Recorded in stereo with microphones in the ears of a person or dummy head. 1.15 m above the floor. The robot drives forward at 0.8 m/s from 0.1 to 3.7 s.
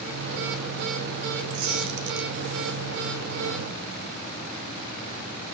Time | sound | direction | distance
1.5 | a squeak | 75° right (ahead or behind) | 2.0 m